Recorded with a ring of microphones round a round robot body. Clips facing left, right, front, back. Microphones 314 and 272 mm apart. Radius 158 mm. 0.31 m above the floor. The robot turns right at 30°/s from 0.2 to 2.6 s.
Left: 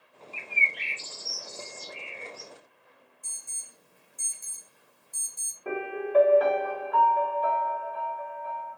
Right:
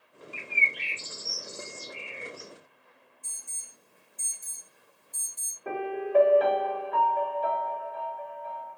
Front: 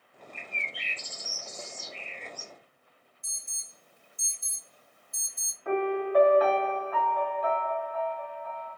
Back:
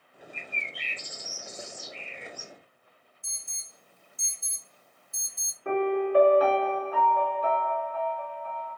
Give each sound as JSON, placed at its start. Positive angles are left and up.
{"t": 0.3, "sound": "a bird", "azimuth_deg": -55, "distance_m": 1.1}
{"t": 3.2, "sound": "an alarm", "azimuth_deg": 65, "distance_m": 2.5}
{"t": 5.7, "sound": "a piano", "azimuth_deg": 175, "distance_m": 1.2}